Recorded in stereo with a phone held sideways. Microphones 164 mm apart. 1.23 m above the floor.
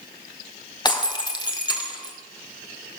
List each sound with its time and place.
0.8 s breaking glass: 25° left (ahead or behind), 1.8 m